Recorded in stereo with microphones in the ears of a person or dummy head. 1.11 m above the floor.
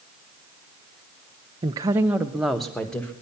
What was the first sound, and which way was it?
A woman speaking, 20° right (ahead or behind).